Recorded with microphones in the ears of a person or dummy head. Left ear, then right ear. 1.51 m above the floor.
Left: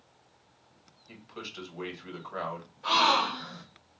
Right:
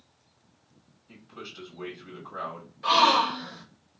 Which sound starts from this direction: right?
A gasp, at 2.8 s.